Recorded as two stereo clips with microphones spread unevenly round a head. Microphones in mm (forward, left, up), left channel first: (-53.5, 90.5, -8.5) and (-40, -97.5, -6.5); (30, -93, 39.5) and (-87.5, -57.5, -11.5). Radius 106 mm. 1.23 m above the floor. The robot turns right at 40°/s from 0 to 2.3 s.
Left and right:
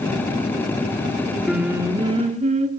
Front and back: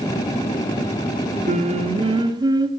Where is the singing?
175° right, 2.5 m; by 2.7 s 140° right, 2.5 m.